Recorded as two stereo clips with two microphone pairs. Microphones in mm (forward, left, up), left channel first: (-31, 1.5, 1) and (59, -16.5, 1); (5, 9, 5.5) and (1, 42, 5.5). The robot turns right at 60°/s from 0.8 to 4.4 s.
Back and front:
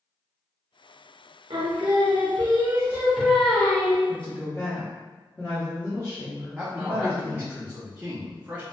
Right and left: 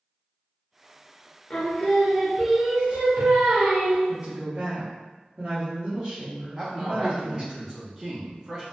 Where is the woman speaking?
110° left, 0.9 m; by 7.6 s 130° left, 0.9 m.